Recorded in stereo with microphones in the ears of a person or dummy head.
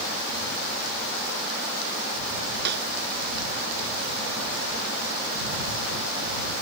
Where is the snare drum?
60° right (ahead or behind).